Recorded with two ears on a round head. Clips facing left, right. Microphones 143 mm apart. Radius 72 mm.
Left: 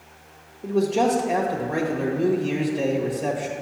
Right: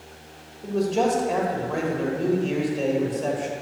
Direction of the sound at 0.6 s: Centre (ahead or behind).